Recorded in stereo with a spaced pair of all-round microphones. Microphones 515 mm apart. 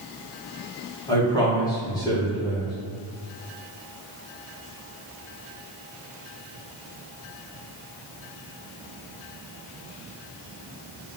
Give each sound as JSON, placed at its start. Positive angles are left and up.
{"t": 1.1, "sound": "a man speaking", "side_deg": 10, "distance_m": 1.6}